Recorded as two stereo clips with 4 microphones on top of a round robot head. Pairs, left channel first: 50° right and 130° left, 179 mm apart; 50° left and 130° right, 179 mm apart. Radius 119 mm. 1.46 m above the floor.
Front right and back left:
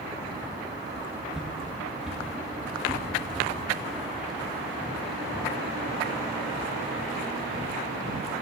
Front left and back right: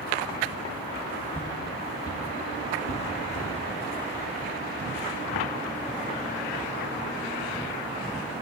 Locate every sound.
1.3 s footsteps: 55° left, 1.4 m; by 3.5 s 40° left, 3.5 m